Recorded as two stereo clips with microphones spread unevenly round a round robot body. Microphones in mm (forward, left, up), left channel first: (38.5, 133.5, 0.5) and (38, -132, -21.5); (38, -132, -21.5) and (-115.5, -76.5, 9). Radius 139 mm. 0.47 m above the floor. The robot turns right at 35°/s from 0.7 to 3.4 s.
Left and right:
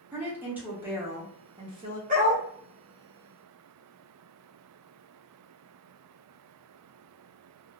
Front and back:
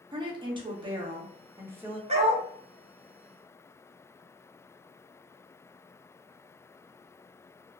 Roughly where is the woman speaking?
Behind right.